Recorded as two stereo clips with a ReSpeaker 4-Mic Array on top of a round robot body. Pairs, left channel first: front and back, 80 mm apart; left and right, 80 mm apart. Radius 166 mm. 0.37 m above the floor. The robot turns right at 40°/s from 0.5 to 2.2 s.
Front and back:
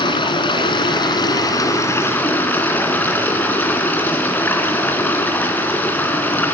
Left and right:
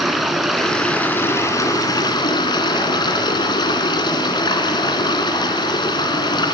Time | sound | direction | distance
0.0 | running water | straight ahead | 2.5 m